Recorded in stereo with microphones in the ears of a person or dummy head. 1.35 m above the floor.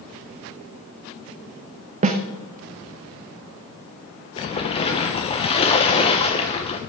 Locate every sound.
2.0 s a snare drum: 35° right (ahead or behind), 0.9 m
4.4 s a splash: 30° left (ahead or behind), 1.0 m